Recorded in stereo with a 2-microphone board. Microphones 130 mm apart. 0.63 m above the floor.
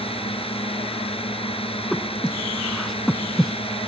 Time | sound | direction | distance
0.0 | a drone | 45° left (ahead or behind) | ?
1.9 | breathing | centre (ahead or behind) | ?